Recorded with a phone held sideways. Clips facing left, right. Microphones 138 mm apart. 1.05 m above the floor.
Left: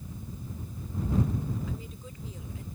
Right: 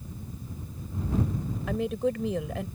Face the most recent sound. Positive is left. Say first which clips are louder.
# right 14 dB
turn(degrees=-75)  # may be behind; listen again after turning